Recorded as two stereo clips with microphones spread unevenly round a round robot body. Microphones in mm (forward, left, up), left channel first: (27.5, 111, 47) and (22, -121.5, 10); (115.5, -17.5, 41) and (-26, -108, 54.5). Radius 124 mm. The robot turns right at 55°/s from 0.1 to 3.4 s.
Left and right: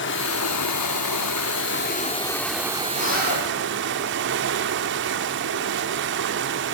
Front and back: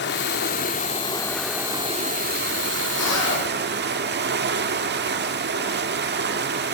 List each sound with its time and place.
0.0 s running water: 45° left, 1.7 m; by 6.8 s 130° right, 1.7 m
2.9 s a zipper: 40° left, 9.5 m; by 3.5 s 70° left, 9.5 m